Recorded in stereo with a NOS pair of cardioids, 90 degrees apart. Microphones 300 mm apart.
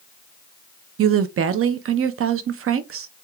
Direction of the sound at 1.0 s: 50° right.